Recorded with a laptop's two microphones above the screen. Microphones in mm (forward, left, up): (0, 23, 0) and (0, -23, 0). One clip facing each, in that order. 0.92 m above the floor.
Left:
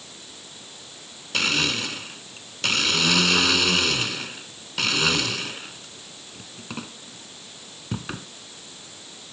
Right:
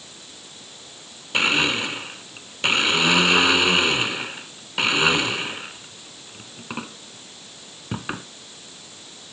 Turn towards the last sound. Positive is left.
turn(degrees=-20)  # may be behind; listen again after turning